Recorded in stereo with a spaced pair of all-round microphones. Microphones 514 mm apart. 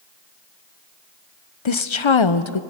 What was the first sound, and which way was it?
A woman speaking, 65° left (ahead or behind).